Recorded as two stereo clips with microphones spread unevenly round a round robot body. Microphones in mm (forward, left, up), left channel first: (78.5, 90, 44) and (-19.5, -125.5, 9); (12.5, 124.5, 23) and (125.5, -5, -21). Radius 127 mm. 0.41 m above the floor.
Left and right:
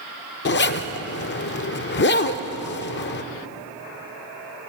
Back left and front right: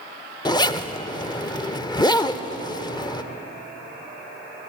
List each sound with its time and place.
0.5 s a zipper: 60° left, 0.9 m